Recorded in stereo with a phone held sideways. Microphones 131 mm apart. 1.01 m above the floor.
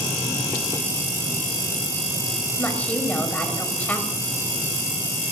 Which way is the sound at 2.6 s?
10° left (ahead or behind).